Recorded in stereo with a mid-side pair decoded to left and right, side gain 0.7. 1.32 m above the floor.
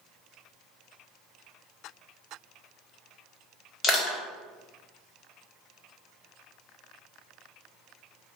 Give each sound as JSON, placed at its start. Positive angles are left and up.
{"t": 3.8, "sound": "crushing", "azimuth_deg": 35, "distance_m": 1.2}